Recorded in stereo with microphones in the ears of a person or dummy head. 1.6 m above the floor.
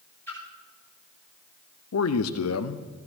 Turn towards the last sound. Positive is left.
turn(degrees=80)